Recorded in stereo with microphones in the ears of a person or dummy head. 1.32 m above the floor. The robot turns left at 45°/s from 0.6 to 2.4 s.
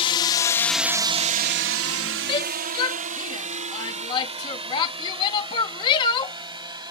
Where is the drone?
30° left (ahead or behind); by 6.9 s 20° right (ahead or behind).